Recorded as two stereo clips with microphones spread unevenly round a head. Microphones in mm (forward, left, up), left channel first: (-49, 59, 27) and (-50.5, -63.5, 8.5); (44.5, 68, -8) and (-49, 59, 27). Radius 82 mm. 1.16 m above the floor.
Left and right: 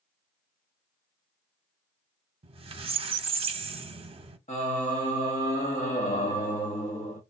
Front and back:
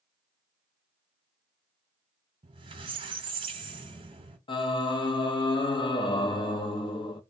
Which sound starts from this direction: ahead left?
Singing, at 4.5 s.